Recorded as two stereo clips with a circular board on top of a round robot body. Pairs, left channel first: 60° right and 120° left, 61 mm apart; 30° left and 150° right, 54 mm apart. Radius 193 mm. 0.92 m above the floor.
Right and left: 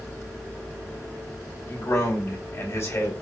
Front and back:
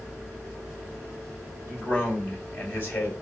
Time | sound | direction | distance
1.7 | a man speaking | 10° right | 1.8 m